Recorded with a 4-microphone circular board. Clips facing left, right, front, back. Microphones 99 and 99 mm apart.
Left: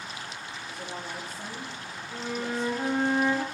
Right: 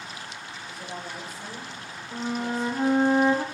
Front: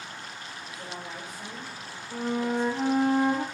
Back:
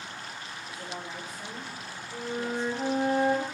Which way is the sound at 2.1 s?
25° right.